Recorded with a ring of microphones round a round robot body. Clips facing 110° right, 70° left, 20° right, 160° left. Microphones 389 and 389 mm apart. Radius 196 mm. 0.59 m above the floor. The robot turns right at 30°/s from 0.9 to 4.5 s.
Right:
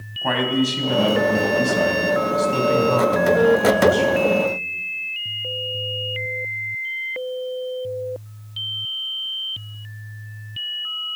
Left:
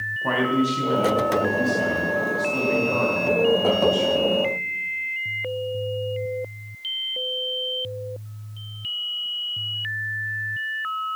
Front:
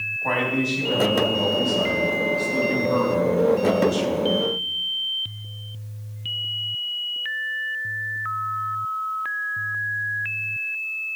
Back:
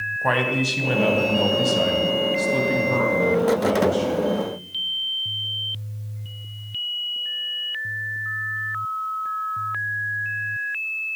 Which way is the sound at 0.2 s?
175° left.